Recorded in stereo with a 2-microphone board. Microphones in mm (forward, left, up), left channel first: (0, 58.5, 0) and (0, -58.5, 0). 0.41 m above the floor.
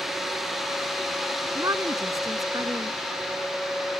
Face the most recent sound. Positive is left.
turn(degrees=-30)  # may be behind; listen again after turning